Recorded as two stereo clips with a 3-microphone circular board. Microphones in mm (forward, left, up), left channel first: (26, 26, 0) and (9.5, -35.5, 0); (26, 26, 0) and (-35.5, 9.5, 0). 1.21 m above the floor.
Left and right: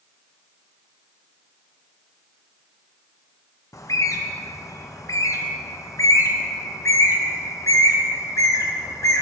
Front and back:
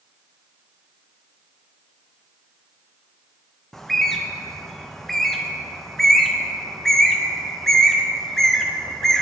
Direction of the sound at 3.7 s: 100° left.